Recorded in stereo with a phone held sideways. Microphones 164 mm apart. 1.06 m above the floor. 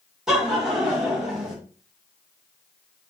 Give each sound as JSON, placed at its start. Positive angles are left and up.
{"t": 0.3, "sound": "laughter", "side_deg": -5, "distance_m": 1.1}